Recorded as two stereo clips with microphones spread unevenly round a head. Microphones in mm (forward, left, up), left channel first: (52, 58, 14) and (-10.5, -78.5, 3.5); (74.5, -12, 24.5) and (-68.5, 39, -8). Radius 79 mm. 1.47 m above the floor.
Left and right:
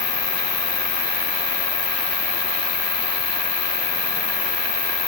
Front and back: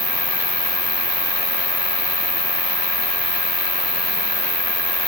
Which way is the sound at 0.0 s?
75° left.